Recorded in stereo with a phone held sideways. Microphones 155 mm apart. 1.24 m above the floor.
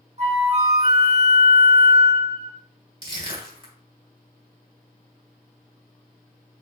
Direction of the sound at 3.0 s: 35° right (ahead or behind).